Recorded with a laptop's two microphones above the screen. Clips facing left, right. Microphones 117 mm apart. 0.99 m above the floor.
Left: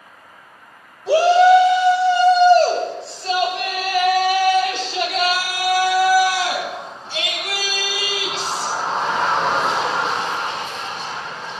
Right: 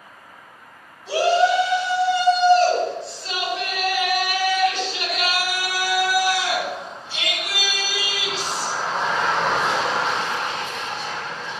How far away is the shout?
About 5.5 m.